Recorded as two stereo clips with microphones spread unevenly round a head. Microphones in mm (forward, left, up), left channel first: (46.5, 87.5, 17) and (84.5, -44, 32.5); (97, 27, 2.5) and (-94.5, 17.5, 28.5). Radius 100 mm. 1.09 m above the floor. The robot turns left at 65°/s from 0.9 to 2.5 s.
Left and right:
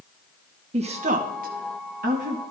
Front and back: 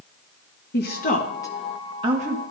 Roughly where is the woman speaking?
Ahead right.